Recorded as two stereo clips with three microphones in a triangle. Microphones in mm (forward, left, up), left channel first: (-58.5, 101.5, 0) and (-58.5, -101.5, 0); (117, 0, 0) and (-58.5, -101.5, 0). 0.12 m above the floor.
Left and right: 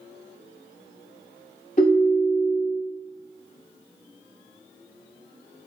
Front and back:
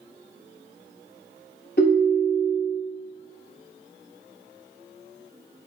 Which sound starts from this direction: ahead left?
A ringtone, at 1.8 s.